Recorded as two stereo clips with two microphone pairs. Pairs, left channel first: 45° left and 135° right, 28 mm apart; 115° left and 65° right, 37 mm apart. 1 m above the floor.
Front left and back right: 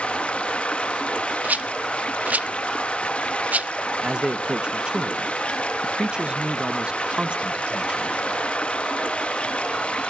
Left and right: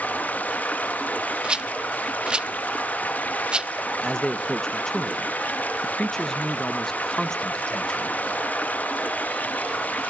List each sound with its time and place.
0.0 s running water: 85° left, 1.3 m
1.4 s a rattle: 130° right, 0.9 m
4.0 s a man speaking: straight behind, 1.1 m